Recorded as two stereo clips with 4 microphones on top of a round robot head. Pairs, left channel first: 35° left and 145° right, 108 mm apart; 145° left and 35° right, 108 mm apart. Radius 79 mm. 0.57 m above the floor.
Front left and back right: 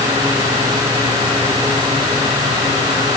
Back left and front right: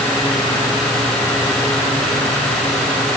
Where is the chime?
No chime in this recording.